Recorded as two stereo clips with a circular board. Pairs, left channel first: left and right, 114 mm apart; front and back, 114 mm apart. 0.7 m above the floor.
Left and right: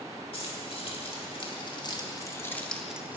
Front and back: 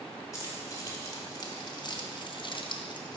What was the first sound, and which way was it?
Keys jangling, 60° left.